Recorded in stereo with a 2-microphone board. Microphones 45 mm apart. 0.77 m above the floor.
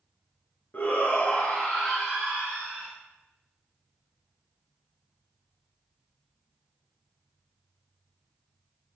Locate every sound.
0.7 s a shout: 45° left (ahead or behind), 1.0 m; by 2.9 s 20° right (ahead or behind), 1.4 m